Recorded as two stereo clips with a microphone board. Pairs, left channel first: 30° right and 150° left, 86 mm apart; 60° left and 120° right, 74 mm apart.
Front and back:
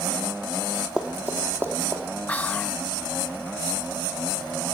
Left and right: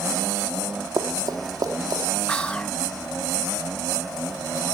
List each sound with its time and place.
1.0 s running footsteps: 130° right, 1.2 m; by 2.0 s 155° right, 2 m
2.3 s whispering: 10° left, 0.6 m